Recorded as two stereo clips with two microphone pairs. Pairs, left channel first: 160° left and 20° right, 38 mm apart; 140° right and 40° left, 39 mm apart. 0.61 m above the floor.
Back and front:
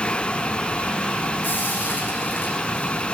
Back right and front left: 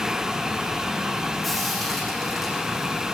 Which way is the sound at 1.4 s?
140° left.